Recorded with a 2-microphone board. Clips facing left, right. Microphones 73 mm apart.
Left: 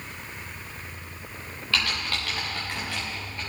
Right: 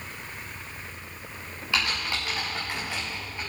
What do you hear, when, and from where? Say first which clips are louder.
1.7 s typing on a keyboard: even; 15° right (ahead or behind), 5.5 m